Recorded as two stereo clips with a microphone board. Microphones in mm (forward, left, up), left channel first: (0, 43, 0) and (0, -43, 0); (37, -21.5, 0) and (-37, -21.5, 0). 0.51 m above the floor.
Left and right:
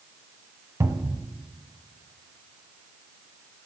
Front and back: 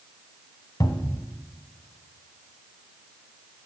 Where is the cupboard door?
35° right, 1.1 m.